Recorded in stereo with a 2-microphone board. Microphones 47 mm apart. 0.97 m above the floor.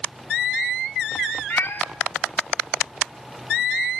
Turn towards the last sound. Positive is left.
turn(degrees=55)  # may be behind; listen again after turning